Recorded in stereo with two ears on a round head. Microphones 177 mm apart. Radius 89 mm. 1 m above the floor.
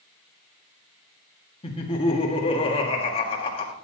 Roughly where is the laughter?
Left.